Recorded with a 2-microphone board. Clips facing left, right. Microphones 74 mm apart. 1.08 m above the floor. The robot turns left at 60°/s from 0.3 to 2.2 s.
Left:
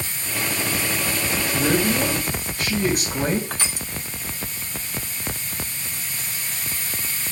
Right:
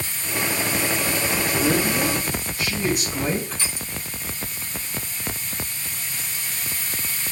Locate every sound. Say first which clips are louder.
1.5 s a man speaking: left 2 dB; 105° left, 4.5 m; by 3.4 s 60° left, 4.5 m
3.5 s crushing: left 2 dB; 65° left (ahead or behind), 1.0 m